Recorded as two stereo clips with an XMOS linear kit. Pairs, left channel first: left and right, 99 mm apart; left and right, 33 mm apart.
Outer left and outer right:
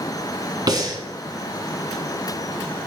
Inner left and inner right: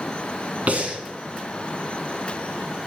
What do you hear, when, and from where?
0.7 s breathing: 45° right (ahead or behind), 1.3 m